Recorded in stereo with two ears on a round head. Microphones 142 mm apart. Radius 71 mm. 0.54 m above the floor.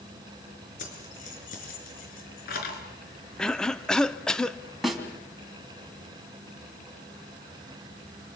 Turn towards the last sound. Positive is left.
turn(degrees=0)  # may be behind; listen again after turning